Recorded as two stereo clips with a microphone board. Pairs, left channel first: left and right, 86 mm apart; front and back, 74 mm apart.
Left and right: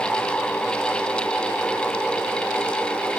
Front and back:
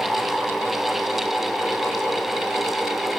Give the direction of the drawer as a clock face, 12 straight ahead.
No drawer in this recording.